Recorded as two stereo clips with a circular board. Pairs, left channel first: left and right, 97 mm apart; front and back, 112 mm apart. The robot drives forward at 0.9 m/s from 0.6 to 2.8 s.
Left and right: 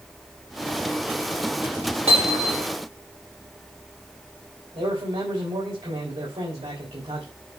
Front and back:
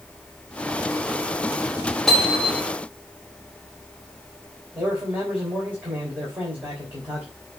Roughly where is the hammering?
Right.